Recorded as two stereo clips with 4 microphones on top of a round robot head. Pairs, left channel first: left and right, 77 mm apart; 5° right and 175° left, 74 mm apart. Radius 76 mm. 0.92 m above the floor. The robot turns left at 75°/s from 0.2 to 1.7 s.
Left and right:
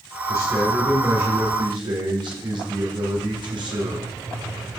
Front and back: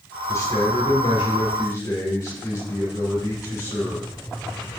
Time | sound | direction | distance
0.3 | a man speaking | 45° left | 4 m